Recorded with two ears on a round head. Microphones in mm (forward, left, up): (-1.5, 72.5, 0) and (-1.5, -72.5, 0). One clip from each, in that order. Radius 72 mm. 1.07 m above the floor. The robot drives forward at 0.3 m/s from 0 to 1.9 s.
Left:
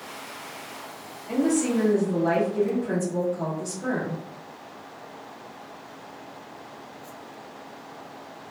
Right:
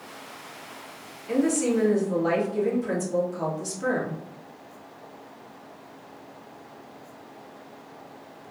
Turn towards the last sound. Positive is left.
turn(degrees=-55)  # may be behind; listen again after turning